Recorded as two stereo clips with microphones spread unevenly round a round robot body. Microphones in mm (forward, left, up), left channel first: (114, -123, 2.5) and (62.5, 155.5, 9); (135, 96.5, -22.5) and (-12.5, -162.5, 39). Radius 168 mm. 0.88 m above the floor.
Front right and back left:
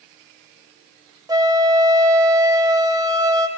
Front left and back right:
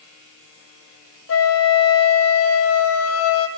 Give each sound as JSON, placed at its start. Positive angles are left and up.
{"t": 1.3, "sound": "a flute", "azimuth_deg": 25, "distance_m": 1.6}